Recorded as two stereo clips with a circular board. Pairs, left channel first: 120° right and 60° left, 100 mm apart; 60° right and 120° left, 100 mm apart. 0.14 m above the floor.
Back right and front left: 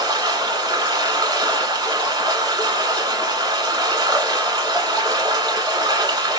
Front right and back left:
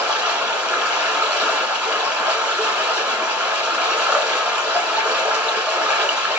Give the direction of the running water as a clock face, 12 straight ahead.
11 o'clock.